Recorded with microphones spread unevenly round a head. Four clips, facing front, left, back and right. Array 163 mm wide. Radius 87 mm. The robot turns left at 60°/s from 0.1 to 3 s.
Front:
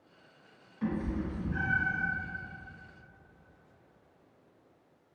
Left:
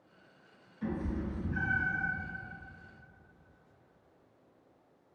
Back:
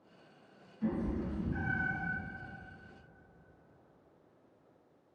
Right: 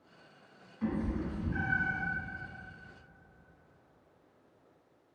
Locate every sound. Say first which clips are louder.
0.8 s a cat meowing: right 2 dB, front 1 dB; 20° right, 1.4 m; by 2.0 s 95° right, 1.4 m